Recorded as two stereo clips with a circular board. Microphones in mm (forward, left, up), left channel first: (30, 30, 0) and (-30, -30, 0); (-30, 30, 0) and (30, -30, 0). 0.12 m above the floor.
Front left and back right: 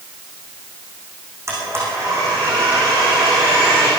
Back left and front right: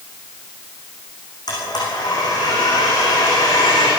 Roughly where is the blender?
Behind.